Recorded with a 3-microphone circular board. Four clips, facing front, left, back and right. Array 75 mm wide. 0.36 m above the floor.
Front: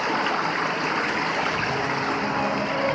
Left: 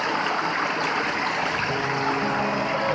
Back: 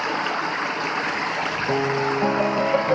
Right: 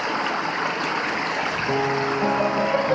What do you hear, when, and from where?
1.7 s a piano: 145° right, 7 m